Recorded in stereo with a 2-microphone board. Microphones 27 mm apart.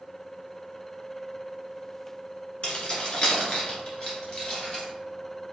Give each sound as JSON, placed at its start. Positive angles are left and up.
{"t": 2.6, "sound": "keys jangling", "side_deg": 45, "distance_m": 1.2}